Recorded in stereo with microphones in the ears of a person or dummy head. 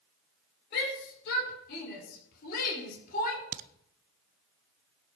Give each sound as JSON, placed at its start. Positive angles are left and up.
{"t": 0.7, "sound": "a shout", "side_deg": 60, "distance_m": 5.0}
{"t": 3.5, "sound": "a crack", "side_deg": -45, "distance_m": 0.8}